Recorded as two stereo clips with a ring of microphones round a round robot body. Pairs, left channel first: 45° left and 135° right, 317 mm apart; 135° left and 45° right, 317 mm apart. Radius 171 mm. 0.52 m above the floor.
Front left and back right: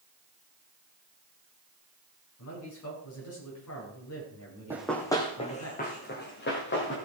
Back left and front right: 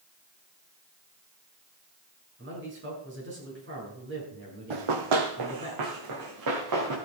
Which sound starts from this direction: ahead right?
Running footsteps, at 4.7 s.